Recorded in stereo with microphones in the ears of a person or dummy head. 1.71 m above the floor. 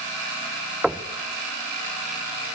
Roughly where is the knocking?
Centre.